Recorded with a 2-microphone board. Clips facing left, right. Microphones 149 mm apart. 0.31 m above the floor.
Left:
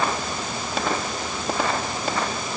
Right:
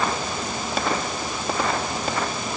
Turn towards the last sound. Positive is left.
No sound to turn to.